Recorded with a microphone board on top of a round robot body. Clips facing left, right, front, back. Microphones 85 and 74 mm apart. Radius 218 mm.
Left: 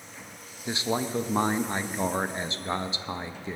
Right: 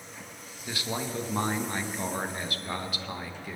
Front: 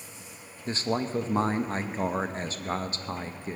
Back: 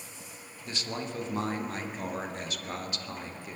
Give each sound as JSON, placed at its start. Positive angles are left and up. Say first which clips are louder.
{"t": 0.7, "sound": "a man speaking", "louder": "left 5 dB, front 7 dB", "azimuth_deg": 35, "distance_m": 1.1}